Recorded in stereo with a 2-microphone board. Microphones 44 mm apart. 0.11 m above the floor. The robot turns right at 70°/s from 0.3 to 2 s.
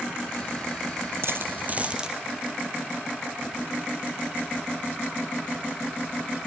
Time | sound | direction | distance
1.2 | a dropped coin | 65° right (ahead or behind) | 1.0 m